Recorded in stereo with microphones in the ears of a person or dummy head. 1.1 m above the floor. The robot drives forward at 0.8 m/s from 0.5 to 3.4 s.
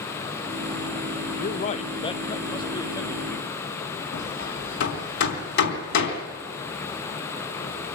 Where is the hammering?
65° left (ahead or behind), 3 m.